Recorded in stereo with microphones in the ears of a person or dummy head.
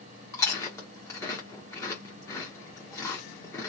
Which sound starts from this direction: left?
Chewing, at 0.3 s.